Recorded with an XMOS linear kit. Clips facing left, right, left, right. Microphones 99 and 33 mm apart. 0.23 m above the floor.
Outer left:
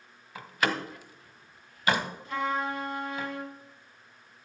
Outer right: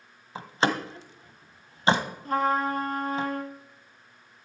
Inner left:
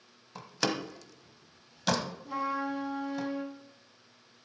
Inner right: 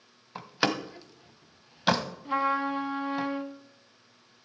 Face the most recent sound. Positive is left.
turn(degrees=-45)  # may be behind; listen again after turning